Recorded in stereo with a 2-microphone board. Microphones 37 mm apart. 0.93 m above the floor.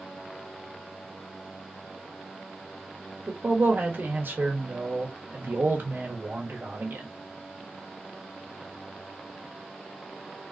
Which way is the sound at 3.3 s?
70° right (ahead or behind).